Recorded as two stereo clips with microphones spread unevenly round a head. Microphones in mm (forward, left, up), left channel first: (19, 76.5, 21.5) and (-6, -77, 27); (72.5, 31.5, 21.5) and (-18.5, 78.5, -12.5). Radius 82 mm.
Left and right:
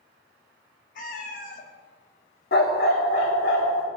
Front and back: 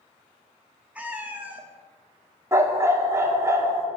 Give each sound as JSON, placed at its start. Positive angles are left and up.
{"t": 0.9, "sound": "a cat meowing", "azimuth_deg": 65, "distance_m": 1.1}
{"t": 2.5, "sound": "a dog barking", "azimuth_deg": 80, "distance_m": 1.6}